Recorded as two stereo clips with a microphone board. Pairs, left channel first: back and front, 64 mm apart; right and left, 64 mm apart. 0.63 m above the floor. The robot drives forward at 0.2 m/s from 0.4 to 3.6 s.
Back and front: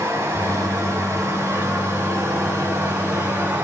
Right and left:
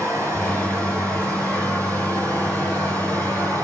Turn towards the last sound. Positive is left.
turn(degrees=60)